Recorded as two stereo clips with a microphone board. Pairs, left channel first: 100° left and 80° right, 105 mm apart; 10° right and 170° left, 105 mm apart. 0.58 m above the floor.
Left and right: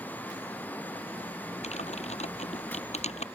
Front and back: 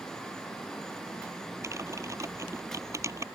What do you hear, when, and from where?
1.6 s typing on a keyboard: 105° left